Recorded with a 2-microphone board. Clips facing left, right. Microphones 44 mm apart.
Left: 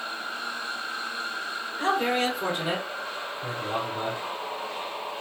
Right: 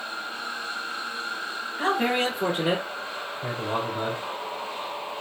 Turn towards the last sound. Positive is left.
turn(degrees=-55)  # may be behind; listen again after turning